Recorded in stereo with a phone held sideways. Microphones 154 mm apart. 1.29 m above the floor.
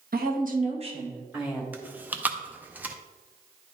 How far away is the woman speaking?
About 1.4 m.